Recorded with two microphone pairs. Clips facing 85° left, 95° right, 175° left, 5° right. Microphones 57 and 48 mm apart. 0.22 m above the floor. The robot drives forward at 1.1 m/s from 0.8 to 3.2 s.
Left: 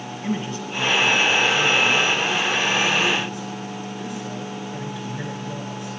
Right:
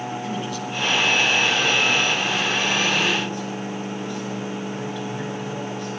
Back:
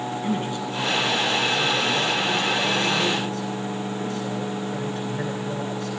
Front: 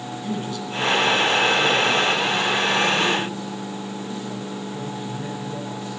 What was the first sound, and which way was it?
A man speaking, 125° left.